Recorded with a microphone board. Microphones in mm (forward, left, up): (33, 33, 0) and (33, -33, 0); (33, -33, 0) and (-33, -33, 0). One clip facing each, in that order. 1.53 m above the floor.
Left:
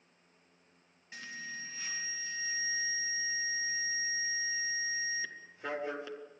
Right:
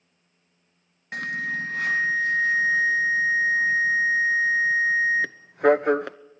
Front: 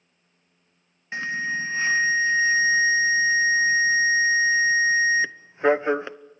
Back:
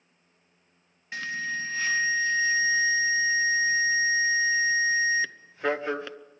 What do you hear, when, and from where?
1.1 s an alarm: 65° right, 0.7 m